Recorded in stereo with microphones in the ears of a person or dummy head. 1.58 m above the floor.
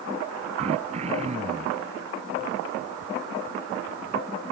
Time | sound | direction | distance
0.6 | throat clearing | 35° right (ahead or behind) | ?